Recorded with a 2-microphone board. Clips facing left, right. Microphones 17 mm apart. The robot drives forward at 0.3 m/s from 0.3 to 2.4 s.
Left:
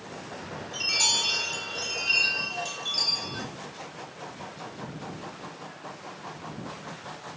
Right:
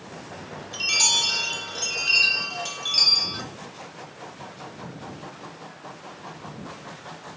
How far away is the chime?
About 1.1 m.